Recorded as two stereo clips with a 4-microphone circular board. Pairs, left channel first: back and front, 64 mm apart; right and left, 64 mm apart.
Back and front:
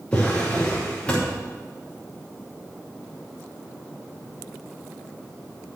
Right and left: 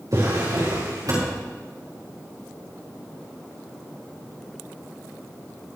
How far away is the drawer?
About 6 m.